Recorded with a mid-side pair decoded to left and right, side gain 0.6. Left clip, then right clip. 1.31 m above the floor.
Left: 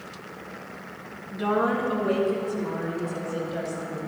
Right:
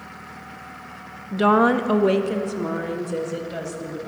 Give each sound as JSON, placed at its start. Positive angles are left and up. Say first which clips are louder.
{"t": 1.3, "sound": "a woman speaking", "louder": "right 7 dB", "azimuth_deg": -50, "distance_m": 0.6}